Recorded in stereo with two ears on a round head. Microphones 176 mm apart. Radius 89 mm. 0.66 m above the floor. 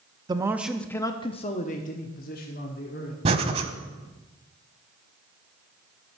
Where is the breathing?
30° right (ahead or behind), 0.9 m.